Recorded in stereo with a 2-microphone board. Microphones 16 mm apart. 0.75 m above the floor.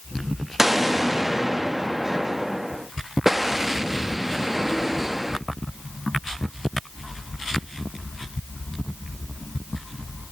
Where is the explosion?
15° right (ahead or behind), 0.7 m.